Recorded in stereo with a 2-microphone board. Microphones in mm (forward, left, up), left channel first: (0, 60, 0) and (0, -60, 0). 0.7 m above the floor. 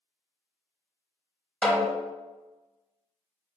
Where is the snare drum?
10° left (ahead or behind), 0.7 m.